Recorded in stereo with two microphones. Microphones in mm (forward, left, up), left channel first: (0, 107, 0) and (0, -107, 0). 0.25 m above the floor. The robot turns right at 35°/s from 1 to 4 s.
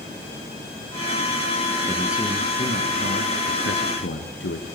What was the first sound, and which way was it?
A man speaking, 5° left.